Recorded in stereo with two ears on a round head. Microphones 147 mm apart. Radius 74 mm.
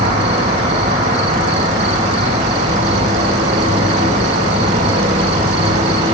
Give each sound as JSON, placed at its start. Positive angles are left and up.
{"t": 0.0, "sound": "an insect", "side_deg": -40, "distance_m": 0.9}